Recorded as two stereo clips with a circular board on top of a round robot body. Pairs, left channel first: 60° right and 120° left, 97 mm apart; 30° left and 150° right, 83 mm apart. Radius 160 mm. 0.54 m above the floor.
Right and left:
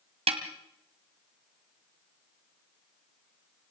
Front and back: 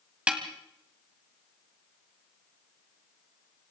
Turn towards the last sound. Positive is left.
turn(degrees=135)